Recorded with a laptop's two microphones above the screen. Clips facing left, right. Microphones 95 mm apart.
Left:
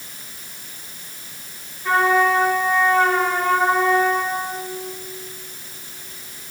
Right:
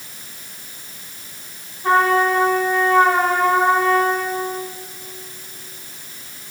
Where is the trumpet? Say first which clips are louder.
Right 1 dB; 40° right (ahead or behind), 3 m.